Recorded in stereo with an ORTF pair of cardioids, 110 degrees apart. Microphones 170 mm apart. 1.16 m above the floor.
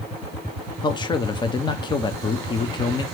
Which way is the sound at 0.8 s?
25° left.